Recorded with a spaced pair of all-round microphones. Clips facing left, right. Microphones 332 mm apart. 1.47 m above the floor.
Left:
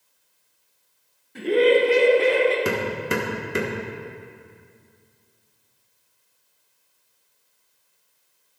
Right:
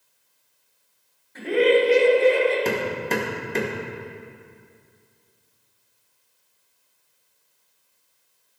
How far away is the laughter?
About 1.7 m.